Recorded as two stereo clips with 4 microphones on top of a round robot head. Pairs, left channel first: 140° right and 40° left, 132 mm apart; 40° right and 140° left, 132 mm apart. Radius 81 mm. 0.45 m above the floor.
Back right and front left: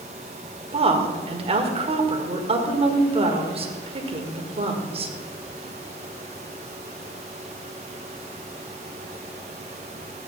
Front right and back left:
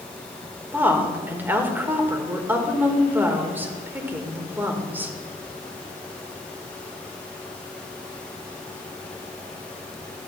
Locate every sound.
0.7 s a woman speaking: 65° left, 1.8 m